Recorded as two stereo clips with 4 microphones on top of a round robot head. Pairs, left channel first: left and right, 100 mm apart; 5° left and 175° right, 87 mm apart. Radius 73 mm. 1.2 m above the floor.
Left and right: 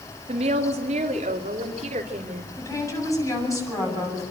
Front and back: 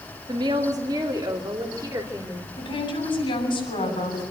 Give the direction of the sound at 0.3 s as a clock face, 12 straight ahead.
4 o'clock.